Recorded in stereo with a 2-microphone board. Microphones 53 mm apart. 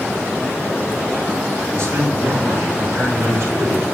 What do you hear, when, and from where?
1.7 s a man speaking: 60° right (ahead or behind), 3 m